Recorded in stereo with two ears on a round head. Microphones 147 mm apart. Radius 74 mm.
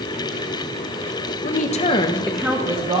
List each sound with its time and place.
1.4 s a woman speaking: 50° left (ahead or behind), 1.1 m; by 3.0 s 30° right (ahead or behind), 1.3 m